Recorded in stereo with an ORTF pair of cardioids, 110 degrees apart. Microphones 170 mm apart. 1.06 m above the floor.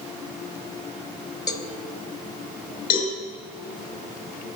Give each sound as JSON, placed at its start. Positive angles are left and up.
{"t": 1.5, "sound": "a cowbell", "azimuth_deg": 25, "distance_m": 1.3}
{"t": 2.9, "sound": "a cowbell", "azimuth_deg": 60, "distance_m": 4.5}